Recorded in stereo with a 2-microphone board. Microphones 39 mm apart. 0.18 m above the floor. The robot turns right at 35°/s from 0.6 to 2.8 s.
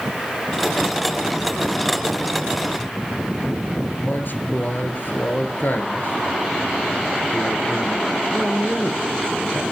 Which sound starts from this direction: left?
A man speaking, at 4.0 s.